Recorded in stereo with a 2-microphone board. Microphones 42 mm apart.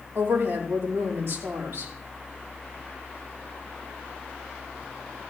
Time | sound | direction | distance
0.1 | a woman speaking | 70° right (ahead or behind) | 7.5 m